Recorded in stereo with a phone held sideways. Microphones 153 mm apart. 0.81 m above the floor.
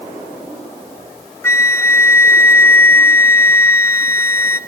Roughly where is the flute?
Centre.